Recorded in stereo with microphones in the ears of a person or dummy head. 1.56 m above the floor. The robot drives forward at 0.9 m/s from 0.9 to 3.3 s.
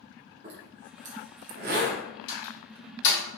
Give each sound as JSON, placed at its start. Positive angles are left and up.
{"t": 0.4, "sound": "a zipper", "side_deg": -40, "distance_m": 1.1}
{"t": 2.3, "sound": "a door slam", "side_deg": 65, "distance_m": 2.0}